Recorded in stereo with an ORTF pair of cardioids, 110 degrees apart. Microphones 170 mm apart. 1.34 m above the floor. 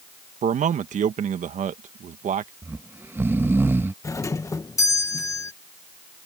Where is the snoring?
15° right.